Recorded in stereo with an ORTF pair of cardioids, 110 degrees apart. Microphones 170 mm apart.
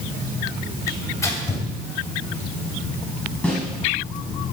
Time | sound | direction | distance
0.9 | tearing paper | 20° left | 3 m
3.4 | a snare drum | 5° left | 6 m